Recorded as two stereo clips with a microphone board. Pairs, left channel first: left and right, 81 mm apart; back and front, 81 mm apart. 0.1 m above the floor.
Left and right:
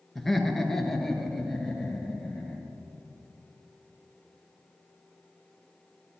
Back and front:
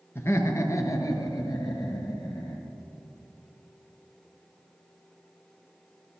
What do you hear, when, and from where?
0.1 s laughter: 175° left, 1.2 m; by 2.6 s 170° left, 2 m